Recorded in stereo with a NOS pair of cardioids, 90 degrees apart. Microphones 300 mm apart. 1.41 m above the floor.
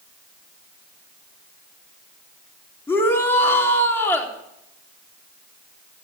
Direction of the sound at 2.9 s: 10° left.